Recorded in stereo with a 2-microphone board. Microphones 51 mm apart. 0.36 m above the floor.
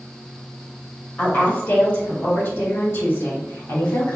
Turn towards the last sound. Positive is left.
turn(degrees=65)  # may be behind; listen again after turning